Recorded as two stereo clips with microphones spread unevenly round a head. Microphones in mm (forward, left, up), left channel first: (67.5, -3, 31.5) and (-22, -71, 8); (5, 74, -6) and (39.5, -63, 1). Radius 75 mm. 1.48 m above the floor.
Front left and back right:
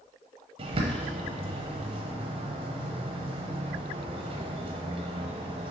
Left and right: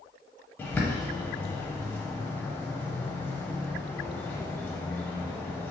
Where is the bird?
Straight behind, 0.5 m.